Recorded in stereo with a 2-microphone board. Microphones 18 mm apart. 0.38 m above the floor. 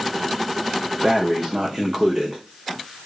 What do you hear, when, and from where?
1.0 s breathing: 35° right (ahead or behind), 4.5 m